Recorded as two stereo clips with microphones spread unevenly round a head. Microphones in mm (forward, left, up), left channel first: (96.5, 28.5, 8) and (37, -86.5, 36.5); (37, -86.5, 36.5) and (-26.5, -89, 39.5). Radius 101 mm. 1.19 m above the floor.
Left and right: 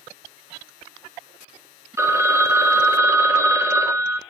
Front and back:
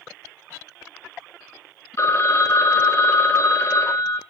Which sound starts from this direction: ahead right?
A phone ringing, at 2.0 s.